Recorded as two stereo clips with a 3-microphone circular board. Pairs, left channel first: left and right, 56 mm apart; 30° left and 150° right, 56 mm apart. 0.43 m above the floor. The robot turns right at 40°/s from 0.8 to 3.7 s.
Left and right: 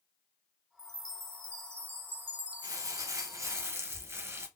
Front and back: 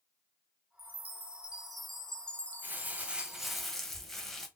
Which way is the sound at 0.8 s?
100° right.